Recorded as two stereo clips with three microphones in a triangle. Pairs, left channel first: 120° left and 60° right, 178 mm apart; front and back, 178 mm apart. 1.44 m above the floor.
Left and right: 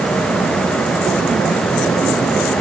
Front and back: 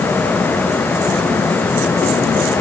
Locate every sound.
Only background noise.